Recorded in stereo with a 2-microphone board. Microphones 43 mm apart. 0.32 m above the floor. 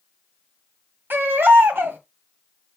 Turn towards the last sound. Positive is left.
turn(degrees=-55)  # may be behind; listen again after turning